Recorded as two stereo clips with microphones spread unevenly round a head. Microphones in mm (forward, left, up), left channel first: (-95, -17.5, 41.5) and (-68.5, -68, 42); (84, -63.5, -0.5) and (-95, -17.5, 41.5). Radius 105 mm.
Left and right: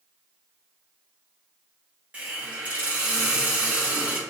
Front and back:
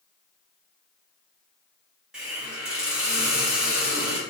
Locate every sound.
2.1 s a hiss: 120° right, 0.7 m